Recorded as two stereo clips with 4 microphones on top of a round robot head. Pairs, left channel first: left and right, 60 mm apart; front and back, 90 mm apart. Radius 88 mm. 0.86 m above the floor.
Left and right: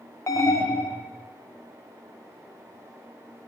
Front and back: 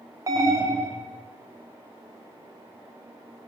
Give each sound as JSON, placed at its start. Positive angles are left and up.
{"t": 0.3, "sound": "an alarm", "azimuth_deg": 125, "distance_m": 1.3}